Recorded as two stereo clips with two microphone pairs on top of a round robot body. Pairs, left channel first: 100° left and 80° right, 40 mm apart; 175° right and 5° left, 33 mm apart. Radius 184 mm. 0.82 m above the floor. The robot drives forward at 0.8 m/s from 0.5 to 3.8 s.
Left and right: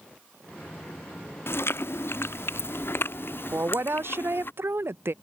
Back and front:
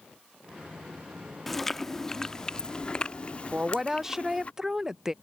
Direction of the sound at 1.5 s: 95° left.